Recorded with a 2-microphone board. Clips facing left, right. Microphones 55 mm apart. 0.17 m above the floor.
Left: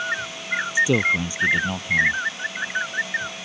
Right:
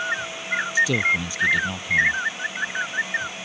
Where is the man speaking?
20° left (ahead or behind).